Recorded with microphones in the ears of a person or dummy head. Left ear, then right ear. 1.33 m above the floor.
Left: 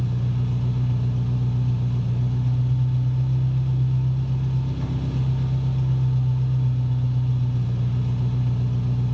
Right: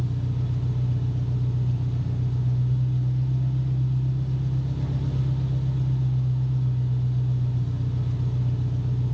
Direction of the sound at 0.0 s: 50° left (ahead or behind).